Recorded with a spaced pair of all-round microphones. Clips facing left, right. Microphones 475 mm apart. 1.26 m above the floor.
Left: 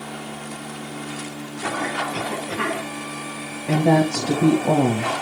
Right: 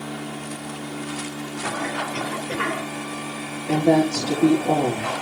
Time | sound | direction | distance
2.1 | a cough | 85° left | 3.5 m
3.7 | a woman speaking | 80° left | 1.5 m